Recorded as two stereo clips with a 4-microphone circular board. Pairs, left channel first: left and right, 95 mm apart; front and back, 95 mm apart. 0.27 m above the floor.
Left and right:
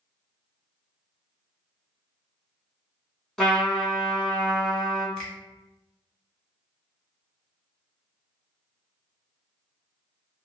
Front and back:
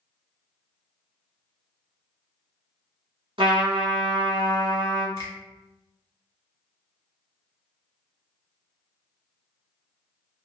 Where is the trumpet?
Straight behind, 1.0 m.